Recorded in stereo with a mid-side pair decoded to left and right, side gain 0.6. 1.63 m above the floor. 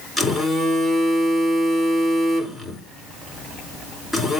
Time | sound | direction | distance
0.2 | a phone buzzing | 10° left | 5 m